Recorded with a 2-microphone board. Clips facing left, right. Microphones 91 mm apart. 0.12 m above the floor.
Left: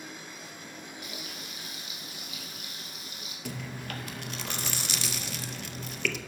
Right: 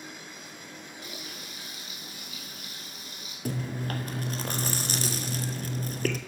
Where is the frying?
30° right (ahead or behind), 3 m.